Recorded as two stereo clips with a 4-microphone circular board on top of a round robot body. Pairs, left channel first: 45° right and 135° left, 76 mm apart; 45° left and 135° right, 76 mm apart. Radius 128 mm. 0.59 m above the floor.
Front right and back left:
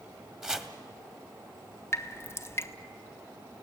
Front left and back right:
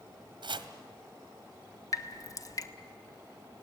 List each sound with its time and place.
0.4 s chopping: 140° right, 1.3 m
1.9 s dripping: 10° left, 1.3 m